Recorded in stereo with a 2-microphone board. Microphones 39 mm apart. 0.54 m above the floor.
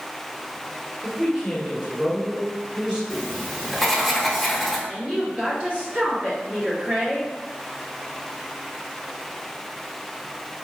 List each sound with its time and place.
1.0 s a man speaking: 25° right (ahead or behind), 1.5 m
3.1 s writing: centre (ahead or behind), 0.7 m
4.9 s a woman speaking: 35° right (ahead or behind), 1.3 m